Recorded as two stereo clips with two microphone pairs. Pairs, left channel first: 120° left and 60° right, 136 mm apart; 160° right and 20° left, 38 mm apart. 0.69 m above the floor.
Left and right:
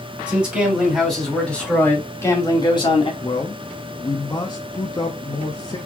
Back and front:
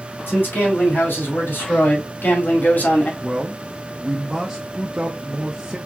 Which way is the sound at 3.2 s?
85° left.